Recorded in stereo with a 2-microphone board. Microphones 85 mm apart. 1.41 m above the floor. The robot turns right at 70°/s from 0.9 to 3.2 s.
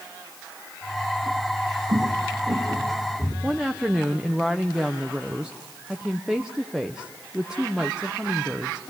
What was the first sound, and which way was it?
Footsteps, 65° right (ahead or behind).